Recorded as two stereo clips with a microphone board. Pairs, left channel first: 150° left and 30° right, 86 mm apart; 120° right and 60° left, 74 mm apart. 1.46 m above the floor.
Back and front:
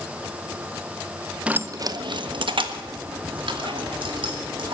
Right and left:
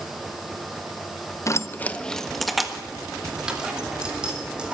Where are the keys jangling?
100° right, 0.6 m; by 4.8 s 15° right, 4 m.